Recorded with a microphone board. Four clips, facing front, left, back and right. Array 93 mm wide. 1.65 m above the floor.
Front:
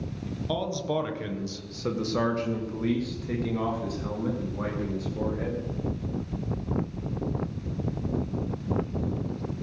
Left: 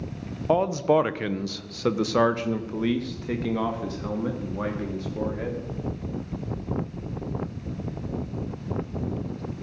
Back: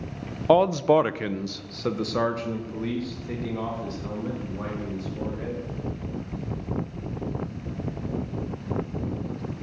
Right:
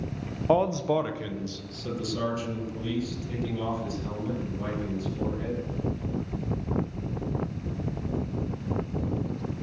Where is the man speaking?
Straight behind, 0.7 m; by 5.6 s 80° left, 3.5 m.